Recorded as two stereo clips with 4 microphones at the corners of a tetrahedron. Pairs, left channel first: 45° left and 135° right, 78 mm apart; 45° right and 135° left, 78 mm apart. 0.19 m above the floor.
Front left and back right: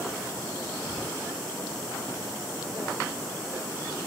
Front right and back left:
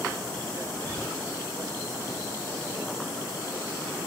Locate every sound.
0.8 s whispering: 30° right, 1.2 m